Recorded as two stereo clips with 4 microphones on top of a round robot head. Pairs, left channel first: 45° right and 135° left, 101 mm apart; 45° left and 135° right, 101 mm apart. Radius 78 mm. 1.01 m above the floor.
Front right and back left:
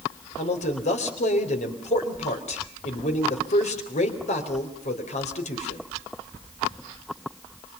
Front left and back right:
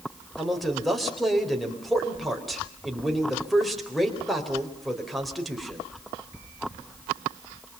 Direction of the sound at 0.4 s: 45° right.